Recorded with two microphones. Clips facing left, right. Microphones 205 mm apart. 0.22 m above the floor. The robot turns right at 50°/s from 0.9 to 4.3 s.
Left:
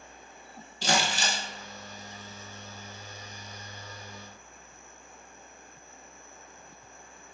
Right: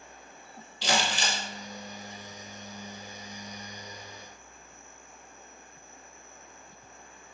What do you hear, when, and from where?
0.8 s crumpling: 50° left (ahead or behind), 0.6 m; by 1.4 s 35° left (ahead or behind), 0.6 m